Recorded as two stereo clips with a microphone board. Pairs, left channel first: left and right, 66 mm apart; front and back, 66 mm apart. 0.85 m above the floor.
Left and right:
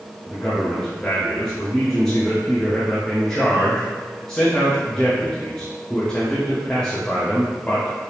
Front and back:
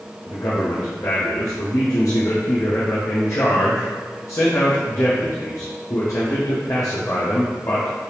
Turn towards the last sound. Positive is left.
turn(degrees=15)